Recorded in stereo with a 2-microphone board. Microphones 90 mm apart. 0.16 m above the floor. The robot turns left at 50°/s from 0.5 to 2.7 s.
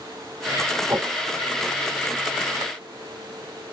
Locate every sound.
0.9 s a whoosh: 25° right (ahead or behind), 0.9 m; by 1.1 s 15° right (ahead or behind), 0.9 m